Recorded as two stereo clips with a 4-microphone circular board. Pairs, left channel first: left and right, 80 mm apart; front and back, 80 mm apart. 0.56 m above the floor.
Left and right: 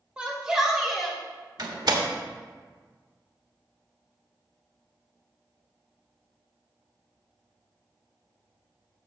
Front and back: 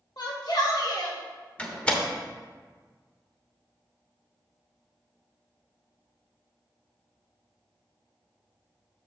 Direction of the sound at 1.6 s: 75° right.